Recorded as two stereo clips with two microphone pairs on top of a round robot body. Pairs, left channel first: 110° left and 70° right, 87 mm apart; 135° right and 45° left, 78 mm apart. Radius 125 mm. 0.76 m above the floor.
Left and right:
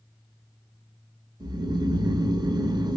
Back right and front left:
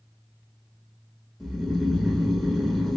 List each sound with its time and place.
1.4 s snoring: 45° right, 0.9 m